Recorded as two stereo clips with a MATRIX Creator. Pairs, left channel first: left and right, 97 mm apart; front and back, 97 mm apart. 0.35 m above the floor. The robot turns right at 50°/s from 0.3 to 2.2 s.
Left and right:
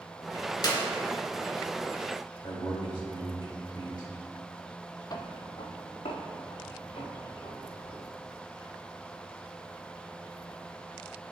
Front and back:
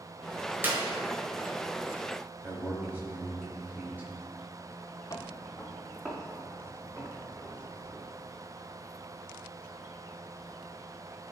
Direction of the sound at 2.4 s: 115° left.